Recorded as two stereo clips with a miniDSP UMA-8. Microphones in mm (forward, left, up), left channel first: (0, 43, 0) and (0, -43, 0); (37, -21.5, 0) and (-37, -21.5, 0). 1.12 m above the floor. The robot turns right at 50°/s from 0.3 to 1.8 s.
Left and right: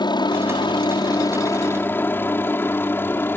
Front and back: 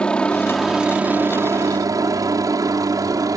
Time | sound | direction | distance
0.0 | a helicopter | 75° left | ?